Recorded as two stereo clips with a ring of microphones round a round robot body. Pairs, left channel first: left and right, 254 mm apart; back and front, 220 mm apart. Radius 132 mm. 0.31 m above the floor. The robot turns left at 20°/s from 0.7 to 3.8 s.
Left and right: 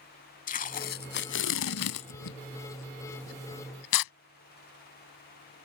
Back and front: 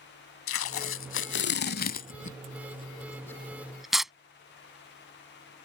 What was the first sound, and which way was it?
Tape being pulled, 150° left.